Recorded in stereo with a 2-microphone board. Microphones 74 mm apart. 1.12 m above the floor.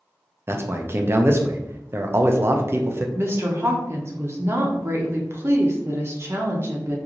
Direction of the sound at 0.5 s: 35° right (ahead or behind).